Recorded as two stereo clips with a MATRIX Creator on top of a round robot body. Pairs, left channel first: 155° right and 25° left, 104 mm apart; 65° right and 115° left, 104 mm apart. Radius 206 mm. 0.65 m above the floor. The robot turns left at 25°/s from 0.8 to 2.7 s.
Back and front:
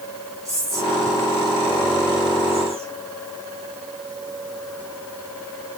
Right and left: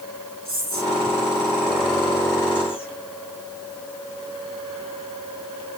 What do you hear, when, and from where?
0.5 s whispering: 80° left, 8 m; by 3.0 s 30° left, 8 m